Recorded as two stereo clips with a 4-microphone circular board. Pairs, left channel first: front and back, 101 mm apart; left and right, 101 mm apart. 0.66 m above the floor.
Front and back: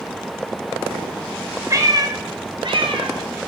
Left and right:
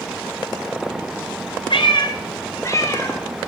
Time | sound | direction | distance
1.7 | a cat meowing | 120° left | 0.9 m